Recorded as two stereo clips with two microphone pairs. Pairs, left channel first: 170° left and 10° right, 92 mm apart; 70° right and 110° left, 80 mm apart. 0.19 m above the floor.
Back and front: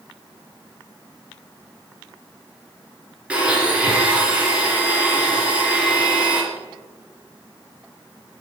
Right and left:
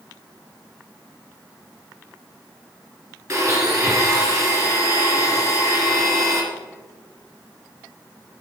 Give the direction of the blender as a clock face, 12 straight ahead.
10 o'clock.